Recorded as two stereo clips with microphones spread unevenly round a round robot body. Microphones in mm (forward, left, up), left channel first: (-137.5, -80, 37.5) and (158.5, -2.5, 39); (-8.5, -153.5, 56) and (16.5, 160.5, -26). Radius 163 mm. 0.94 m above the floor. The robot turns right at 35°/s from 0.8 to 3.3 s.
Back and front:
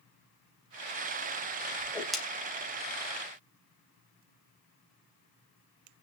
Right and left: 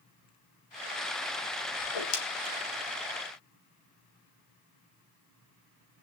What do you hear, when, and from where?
1.8 s a whoosh: 90° right, 3 m; by 2.2 s 75° right, 3 m